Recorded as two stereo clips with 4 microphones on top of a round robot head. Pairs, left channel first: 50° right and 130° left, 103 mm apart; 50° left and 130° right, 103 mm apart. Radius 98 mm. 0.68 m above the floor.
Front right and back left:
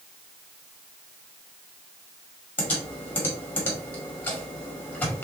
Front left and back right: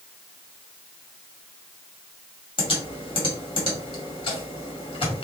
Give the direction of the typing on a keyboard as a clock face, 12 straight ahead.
11 o'clock.